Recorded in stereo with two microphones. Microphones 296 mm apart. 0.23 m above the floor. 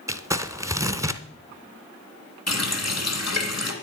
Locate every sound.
0.1 s crumpling: 10° right (ahead or behind), 0.6 m
2.5 s a running tap: 65° left (ahead or behind), 1.9 m